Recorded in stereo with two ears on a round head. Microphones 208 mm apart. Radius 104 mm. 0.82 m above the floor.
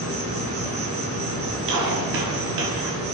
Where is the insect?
30° right (ahead or behind), 5.5 m.